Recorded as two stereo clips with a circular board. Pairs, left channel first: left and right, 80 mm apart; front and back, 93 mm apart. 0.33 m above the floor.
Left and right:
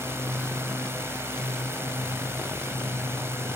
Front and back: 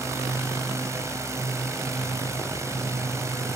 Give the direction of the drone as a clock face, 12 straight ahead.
4 o'clock.